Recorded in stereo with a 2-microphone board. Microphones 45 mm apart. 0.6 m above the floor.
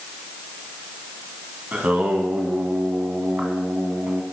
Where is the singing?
30° right (ahead or behind), 1.4 m.